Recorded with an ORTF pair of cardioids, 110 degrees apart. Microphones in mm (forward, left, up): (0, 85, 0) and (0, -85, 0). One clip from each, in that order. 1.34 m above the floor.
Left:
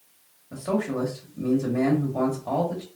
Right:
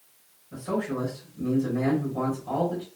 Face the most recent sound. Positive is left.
turn(degrees=60)